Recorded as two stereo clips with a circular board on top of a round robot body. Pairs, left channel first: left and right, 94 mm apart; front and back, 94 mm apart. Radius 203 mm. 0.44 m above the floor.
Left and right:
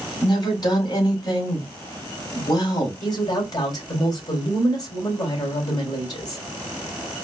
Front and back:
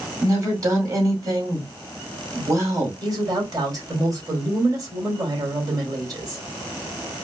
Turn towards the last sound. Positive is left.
turn(degrees=135)